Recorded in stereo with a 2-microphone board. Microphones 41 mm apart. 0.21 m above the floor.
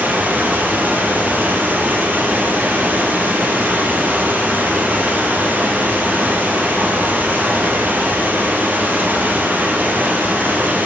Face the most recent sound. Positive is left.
turn(degrees=-45)  # may be behind; listen again after turning